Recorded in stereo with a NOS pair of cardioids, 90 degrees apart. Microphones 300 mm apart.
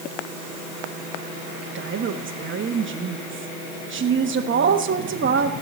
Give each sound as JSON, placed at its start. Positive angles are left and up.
{"t": 1.8, "sound": "a woman speaking", "azimuth_deg": -40, "distance_m": 1.0}